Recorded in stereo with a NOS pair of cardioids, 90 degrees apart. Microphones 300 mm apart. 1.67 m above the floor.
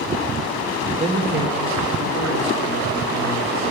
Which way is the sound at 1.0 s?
20° right.